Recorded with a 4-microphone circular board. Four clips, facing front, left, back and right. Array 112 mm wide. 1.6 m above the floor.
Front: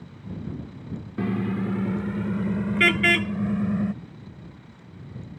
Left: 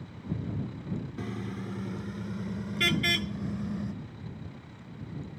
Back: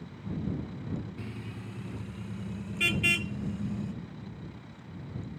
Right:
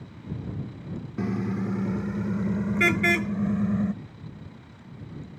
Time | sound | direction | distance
1.2 | a car horn | 25° right | ?